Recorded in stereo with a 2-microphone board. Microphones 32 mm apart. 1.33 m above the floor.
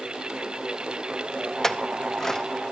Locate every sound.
1.6 s a clink: 20° left (ahead or behind), 0.7 m